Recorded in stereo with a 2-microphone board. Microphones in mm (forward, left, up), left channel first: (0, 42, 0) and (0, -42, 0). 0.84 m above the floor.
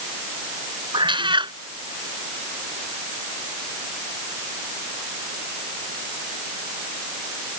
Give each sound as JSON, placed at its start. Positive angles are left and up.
{"t": 0.9, "sound": "a cat meowing", "side_deg": -75}